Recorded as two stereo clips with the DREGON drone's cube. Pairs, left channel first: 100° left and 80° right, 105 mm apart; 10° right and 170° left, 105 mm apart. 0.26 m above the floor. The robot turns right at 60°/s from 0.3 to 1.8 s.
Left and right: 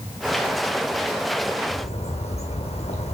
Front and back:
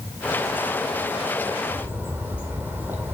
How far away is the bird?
About 1.8 m.